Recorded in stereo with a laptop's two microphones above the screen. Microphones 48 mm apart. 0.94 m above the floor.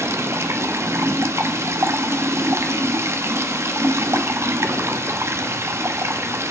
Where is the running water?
75° right (ahead or behind), 1.0 m.